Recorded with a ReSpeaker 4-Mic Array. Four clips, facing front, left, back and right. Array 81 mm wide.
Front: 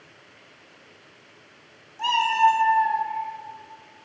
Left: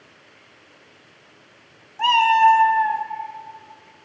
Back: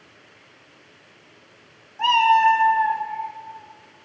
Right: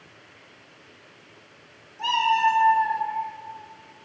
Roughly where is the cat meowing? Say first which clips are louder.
Left 6 dB, back 4 dB; behind left.